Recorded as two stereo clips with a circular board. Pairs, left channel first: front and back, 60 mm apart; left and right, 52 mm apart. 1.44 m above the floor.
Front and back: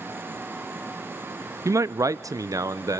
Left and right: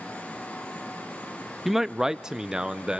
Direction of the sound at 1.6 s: Straight behind.